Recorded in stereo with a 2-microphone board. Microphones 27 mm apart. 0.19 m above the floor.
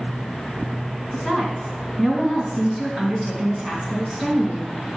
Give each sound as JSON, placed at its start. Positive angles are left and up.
{"t": 1.1, "sound": "a woman speaking", "side_deg": -15, "distance_m": 2.0}